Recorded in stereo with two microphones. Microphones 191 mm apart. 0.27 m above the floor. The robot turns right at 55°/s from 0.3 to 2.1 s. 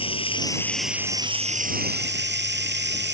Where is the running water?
150° left; by 3.1 s 110° right.